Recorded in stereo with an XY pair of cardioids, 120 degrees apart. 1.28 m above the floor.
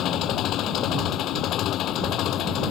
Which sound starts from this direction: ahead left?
An engine running, at 0.0 s.